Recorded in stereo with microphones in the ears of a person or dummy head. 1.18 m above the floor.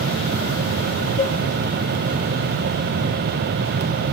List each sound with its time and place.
1.2 s dishes clattering: 20° left (ahead or behind), 0.5 m